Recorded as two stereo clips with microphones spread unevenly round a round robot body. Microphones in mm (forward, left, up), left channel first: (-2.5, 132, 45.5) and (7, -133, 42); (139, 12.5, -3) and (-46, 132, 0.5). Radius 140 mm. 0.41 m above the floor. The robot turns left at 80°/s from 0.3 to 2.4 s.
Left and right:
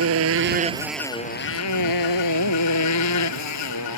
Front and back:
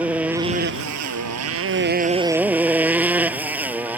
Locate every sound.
0.0 s a motorcycle: 125° right; by 4.0 s 65° left